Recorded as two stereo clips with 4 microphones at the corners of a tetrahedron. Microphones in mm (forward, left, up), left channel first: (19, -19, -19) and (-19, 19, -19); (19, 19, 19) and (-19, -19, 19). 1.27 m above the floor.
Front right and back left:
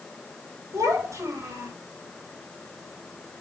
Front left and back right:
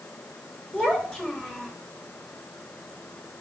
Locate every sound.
0.7 s a child speaking: 120° left, 5 m